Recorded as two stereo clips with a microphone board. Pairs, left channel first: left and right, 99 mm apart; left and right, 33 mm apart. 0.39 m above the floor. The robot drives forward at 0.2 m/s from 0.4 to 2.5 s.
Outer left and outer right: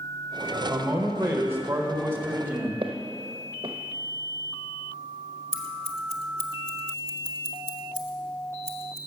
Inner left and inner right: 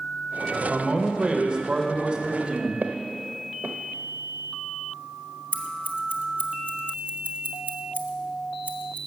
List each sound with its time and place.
0.7 s a man speaking: 30° right (ahead or behind), 1.0 m; by 2.7 s 25° right (ahead or behind), 1.2 m
2.8 s footsteps: 70° right (ahead or behind), 0.9 m
5.5 s scissors: 85° right, 0.9 m